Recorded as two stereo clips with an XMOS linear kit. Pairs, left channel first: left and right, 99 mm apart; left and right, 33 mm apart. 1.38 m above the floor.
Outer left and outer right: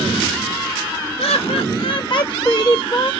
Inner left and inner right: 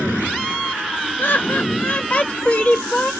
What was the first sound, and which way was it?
Laughter, 80° left.